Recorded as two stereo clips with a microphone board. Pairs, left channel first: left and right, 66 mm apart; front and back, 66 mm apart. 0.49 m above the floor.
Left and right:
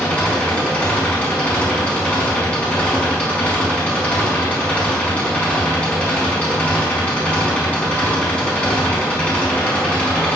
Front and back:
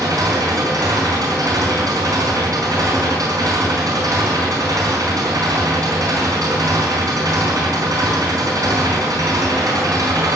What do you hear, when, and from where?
0.0 s an engine running: 160° left, 4.5 m